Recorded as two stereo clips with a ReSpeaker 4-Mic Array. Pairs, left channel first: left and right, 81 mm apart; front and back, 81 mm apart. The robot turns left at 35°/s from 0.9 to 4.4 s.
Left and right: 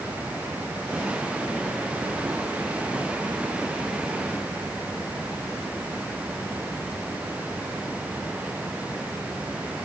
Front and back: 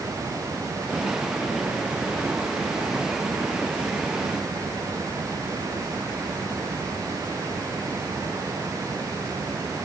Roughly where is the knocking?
I don't hear knocking.